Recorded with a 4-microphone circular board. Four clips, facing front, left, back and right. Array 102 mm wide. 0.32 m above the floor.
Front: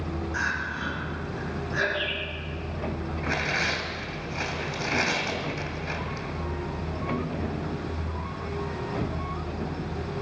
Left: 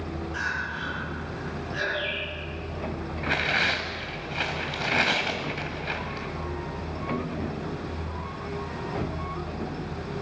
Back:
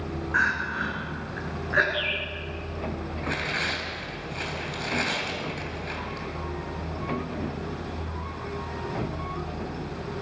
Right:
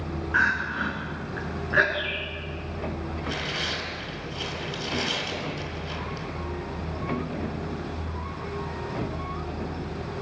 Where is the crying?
130° right, 3 m.